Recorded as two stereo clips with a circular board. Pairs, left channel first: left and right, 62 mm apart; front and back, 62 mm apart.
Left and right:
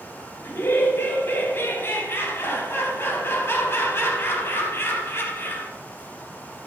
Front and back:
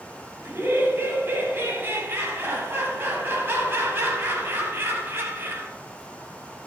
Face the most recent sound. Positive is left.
turn(degrees=135)